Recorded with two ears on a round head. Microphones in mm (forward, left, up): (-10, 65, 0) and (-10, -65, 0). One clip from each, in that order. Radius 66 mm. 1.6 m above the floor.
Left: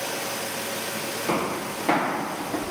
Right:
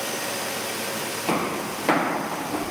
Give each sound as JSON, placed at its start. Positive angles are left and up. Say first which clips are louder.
{"t": 1.3, "sound": "footsteps", "louder": "right 1 dB", "side_deg": -30, "distance_m": 1.9}